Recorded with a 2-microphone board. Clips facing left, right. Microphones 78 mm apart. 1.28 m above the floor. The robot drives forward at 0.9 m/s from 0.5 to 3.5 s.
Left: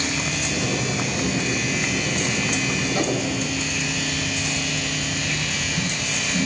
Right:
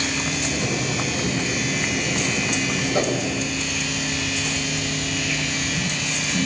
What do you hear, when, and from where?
2.9 s a whoosh: 35° right (ahead or behind), 6 m; by 3.2 s 30° right (ahead or behind), 6 m